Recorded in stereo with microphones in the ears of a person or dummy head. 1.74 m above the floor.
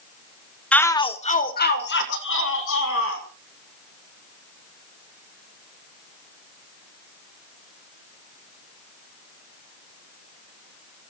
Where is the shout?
5° left (ahead or behind), 1.0 m; by 3.2 s 75° left (ahead or behind), 2.5 m.